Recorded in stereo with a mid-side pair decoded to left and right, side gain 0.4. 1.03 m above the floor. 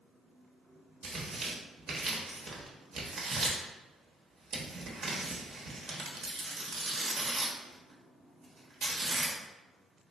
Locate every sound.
1.0 s tearing paper: 65° right, 0.9 m